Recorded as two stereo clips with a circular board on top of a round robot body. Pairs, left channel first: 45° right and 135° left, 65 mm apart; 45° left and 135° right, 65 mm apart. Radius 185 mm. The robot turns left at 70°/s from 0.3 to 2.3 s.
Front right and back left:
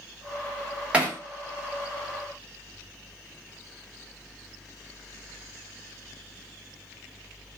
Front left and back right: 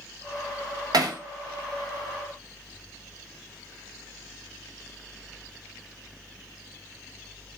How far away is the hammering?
About 1.0 m.